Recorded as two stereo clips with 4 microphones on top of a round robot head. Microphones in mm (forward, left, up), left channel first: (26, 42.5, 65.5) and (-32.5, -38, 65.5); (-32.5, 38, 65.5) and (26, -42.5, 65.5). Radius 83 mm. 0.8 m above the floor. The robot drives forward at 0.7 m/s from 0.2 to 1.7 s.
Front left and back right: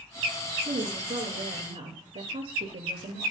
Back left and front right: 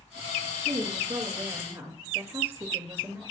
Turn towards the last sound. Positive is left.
turn(degrees=-120)